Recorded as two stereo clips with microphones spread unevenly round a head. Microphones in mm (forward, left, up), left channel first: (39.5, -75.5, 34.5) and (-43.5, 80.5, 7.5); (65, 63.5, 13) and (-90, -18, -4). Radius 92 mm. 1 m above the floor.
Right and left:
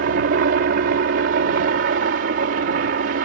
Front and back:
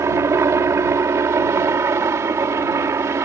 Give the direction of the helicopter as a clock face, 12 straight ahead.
7 o'clock.